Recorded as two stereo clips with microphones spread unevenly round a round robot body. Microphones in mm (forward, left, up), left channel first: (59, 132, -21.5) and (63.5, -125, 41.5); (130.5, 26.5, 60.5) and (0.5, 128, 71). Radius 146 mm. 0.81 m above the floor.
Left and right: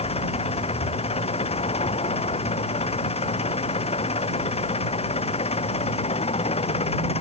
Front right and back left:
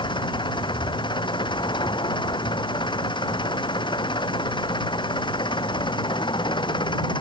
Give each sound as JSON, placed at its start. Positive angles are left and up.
{"t": 0.0, "sound": "an engine running", "azimuth_deg": 25}